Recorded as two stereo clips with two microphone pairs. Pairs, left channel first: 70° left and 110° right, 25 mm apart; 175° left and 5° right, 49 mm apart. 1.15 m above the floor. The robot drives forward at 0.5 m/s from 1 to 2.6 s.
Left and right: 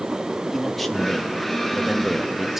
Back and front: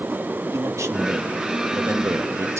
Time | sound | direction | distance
0.5 | a man speaking | 15° right | 1.8 m